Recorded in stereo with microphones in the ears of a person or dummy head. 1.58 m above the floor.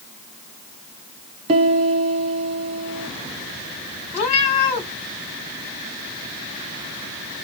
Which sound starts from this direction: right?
A piano, at 1.5 s.